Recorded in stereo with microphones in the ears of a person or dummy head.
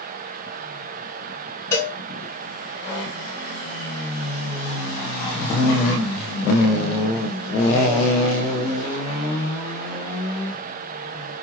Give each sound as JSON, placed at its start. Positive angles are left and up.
{"t": 1.7, "sound": "a cowbell", "side_deg": 15, "distance_m": 1.2}